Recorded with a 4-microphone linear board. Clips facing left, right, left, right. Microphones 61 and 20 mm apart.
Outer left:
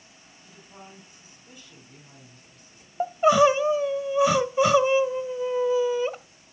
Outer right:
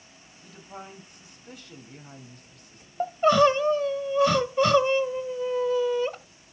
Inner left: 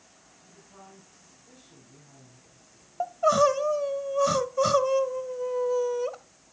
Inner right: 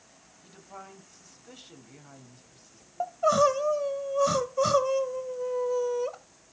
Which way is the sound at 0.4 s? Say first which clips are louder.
Outer right 5 dB, inner right 6 dB; 65° right (ahead or behind).